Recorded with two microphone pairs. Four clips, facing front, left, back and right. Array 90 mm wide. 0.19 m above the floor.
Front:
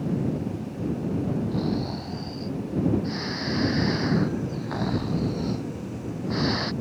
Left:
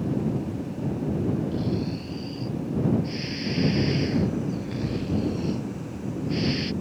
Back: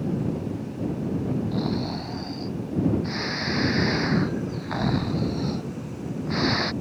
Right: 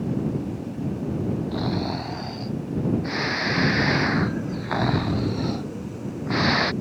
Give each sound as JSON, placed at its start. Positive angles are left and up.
{"t": 1.5, "sound": "snoring", "azimuth_deg": -100}